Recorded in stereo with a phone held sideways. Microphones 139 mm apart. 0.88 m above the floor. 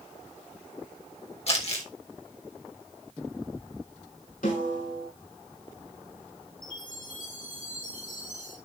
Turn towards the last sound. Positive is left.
turn(degrees=80)